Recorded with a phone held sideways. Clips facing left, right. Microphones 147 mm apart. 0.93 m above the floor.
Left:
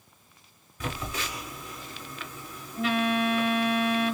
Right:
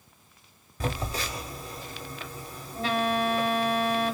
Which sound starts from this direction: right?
A phone buzzing, at 0.8 s.